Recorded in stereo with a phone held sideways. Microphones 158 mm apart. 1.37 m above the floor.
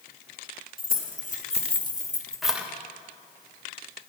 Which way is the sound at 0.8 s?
65° left (ahead or behind).